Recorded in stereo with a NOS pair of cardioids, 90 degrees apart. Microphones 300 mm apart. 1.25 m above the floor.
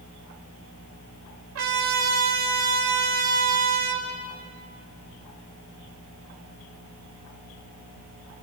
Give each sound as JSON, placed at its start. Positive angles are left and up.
{"t": 1.6, "sound": "a trumpet", "azimuth_deg": -60, "distance_m": 6.0}